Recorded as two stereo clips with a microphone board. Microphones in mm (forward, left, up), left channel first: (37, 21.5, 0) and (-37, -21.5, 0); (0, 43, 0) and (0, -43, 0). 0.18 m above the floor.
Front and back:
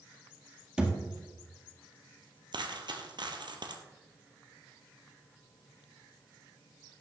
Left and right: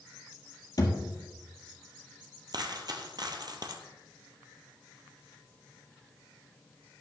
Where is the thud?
130° left, 2 m.